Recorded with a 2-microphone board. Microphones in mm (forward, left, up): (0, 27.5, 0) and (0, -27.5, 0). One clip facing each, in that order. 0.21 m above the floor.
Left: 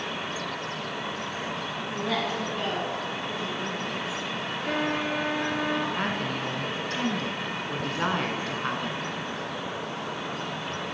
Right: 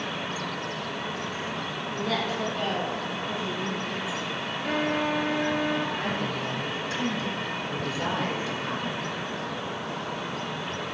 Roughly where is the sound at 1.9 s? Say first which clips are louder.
Even; centre.